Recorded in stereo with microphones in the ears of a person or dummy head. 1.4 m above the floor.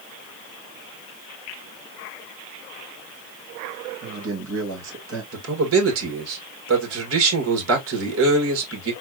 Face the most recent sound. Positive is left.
turn(degrees=-85)